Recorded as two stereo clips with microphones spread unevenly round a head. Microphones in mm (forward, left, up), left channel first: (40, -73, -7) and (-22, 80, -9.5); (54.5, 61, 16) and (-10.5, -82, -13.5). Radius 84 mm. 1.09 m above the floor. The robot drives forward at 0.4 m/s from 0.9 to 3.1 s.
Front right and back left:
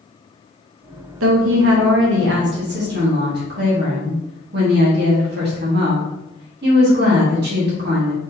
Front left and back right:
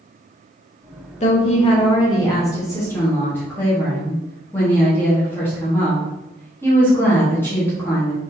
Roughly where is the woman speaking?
Behind left.